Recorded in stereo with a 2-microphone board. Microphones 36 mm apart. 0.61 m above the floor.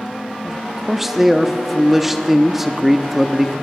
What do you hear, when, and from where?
0.4 s a man speaking: 10° right (ahead or behind), 0.7 m